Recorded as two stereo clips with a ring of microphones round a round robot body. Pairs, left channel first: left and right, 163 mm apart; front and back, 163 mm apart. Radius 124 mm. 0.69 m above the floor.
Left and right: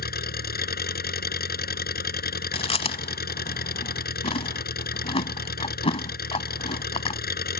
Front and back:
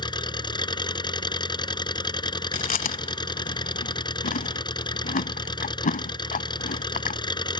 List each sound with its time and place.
0.0 s an engine running: 65° left
2.5 s chewing: 35° left